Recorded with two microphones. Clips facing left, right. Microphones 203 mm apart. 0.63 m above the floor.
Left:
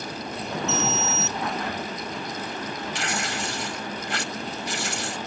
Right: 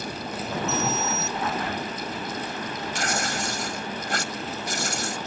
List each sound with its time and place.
0.7 s an alarm: 70° left (ahead or behind)
3.0 s tearing paper: 45° right (ahead or behind)